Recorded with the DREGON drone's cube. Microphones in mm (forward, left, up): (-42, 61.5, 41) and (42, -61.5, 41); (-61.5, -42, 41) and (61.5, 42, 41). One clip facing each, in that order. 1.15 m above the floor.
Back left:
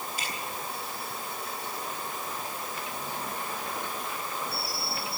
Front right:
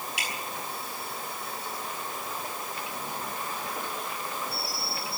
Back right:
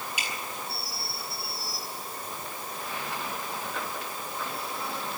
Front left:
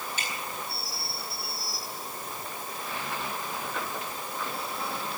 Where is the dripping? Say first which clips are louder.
Even, even; 70° right, 10 m.